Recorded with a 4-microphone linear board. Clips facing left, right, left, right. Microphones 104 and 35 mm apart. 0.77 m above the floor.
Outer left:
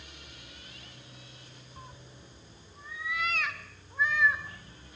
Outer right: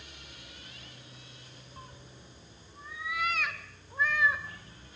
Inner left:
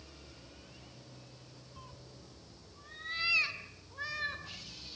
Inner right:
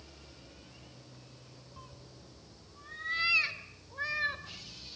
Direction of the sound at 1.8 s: 5° left (ahead or behind).